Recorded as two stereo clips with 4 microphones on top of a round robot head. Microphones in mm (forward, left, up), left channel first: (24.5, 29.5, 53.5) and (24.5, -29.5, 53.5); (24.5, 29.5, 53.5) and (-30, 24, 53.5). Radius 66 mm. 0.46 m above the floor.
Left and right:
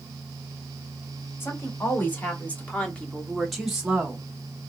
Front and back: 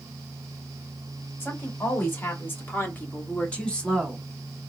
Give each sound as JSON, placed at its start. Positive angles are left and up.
{"t": 1.4, "sound": "a woman speaking", "azimuth_deg": 45, "distance_m": 2.5}